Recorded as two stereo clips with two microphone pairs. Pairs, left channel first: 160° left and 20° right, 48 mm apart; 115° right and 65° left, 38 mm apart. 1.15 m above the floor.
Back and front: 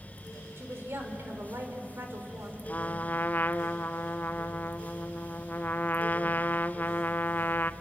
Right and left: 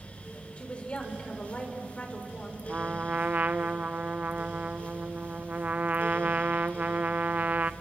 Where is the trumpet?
115° left, 0.5 m.